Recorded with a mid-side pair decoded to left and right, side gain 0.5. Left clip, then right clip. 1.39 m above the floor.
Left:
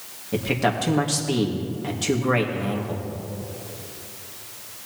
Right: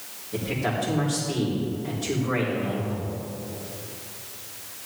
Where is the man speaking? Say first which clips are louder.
Left 5 dB; 70° left, 2.5 m.